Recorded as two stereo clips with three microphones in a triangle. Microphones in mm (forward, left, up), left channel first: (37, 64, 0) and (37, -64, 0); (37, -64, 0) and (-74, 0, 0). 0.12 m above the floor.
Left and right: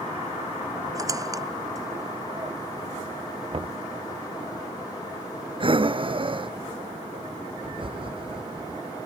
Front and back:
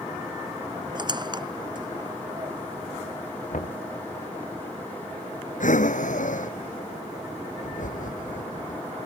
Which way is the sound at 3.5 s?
45° right.